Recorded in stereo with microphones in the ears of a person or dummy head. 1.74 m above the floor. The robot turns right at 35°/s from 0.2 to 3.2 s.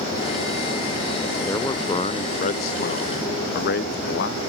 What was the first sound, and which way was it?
A man speaking, 15° left.